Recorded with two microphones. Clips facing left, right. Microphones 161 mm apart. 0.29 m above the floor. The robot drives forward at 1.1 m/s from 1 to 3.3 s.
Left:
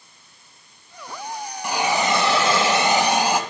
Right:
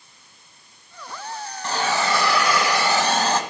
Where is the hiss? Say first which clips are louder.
Left 2 dB; 10° left (ahead or behind), 1.1 m; by 3.4 s 15° left (ahead or behind), 1.0 m.